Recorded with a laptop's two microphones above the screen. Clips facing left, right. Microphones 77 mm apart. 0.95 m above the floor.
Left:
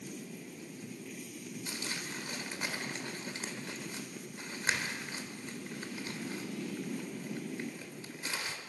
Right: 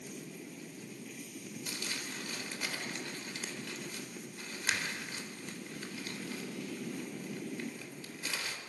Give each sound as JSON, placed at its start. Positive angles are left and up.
{"t": 1.7, "sound": "crumpling", "side_deg": 30, "distance_m": 3.5}